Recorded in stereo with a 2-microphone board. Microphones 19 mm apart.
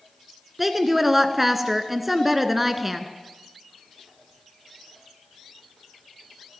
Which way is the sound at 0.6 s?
10° right (ahead or behind).